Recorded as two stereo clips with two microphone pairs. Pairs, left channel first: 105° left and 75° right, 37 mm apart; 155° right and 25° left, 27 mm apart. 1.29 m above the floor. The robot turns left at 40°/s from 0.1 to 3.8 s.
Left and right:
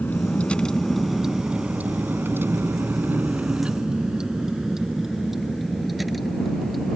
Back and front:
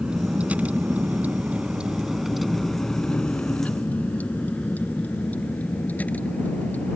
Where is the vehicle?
70° left; by 7.0 s 165° right.